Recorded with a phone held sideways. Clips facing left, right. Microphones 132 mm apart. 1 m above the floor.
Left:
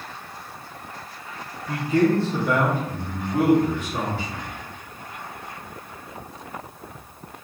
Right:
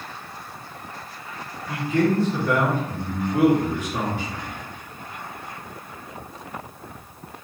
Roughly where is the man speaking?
Left.